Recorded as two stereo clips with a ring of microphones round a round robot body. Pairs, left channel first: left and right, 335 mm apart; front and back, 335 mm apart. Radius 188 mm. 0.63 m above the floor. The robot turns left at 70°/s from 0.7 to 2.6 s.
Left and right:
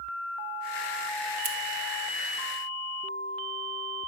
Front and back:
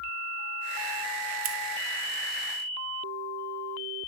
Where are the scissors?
140° right, 1.5 m; by 1.6 s 150° right, 1.5 m.